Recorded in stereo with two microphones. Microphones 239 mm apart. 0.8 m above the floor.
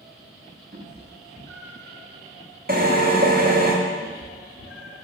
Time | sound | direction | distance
0.7 | a cat meowing | 35° right (ahead or behind) | 0.8 m
2.7 | a drill | 40° right (ahead or behind) | 0.9 m
4.0 | a cat meowing | 65° left (ahead or behind) | 1.2 m